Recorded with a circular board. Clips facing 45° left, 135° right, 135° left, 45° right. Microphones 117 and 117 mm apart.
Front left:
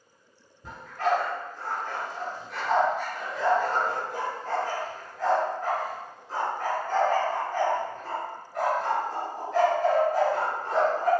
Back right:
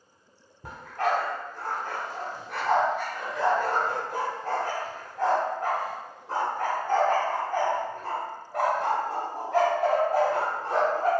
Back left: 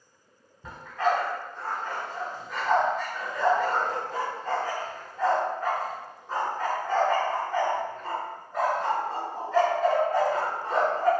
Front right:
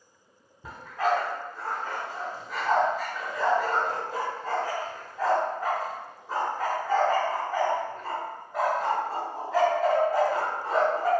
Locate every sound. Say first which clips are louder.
0.6 s a dog barking: front left 1 dB, even; 125° right, 0.7 m